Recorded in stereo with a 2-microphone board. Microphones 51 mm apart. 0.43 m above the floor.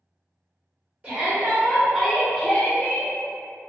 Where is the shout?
30° right (ahead or behind), 1.0 m; by 3.1 s 30° left (ahead or behind), 0.9 m.